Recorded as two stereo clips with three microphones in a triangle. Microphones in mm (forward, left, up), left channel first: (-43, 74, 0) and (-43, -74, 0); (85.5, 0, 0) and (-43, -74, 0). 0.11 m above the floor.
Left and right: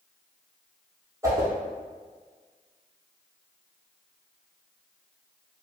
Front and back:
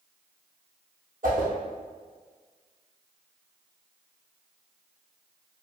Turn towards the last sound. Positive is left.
turn(degrees=-160)